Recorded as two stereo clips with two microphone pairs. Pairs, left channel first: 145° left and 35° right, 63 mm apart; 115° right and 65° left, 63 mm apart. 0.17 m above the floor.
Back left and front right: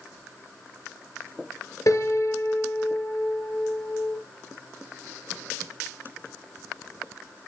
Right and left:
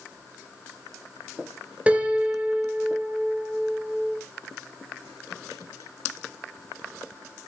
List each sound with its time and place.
1.9 s a piano: 130° left, 2 m